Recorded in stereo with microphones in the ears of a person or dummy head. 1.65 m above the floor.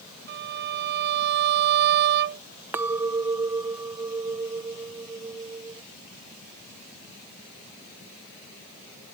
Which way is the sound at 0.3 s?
60° right (ahead or behind).